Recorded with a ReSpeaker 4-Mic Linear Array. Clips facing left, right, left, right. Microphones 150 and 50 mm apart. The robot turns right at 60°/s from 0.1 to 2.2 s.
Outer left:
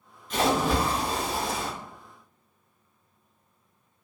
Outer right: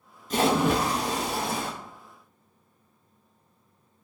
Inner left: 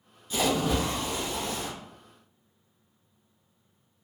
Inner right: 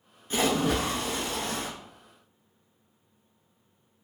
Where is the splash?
135° right, 0.7 m; by 1.7 s 50° right, 0.7 m.